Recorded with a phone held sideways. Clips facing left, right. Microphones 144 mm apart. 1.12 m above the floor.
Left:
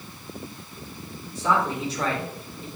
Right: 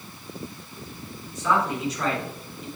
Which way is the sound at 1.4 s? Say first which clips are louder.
Even; 30° left (ahead or behind).